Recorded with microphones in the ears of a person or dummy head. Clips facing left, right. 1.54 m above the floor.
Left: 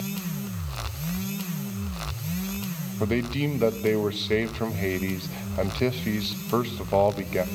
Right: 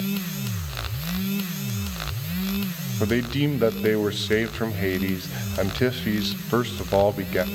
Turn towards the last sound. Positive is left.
turn(degrees=-10)  # may be behind; listen again after turning